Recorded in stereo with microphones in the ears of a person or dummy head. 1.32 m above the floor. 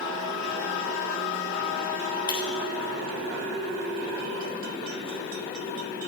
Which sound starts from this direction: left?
Breaking glass, at 2.3 s.